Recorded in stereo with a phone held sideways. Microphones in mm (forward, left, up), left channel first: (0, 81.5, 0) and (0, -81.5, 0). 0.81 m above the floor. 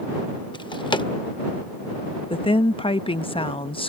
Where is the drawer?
30° left (ahead or behind).